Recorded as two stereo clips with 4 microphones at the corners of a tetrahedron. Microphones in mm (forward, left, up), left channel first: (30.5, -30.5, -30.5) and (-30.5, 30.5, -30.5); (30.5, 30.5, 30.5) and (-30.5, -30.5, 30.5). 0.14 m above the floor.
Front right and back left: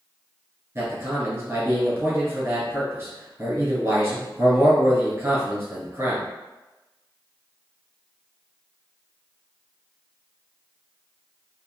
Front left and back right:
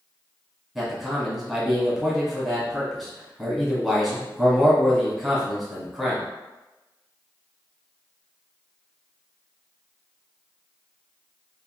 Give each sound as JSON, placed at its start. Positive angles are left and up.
{"t": 0.8, "sound": "a man speaking", "azimuth_deg": 140, "distance_m": 1.2}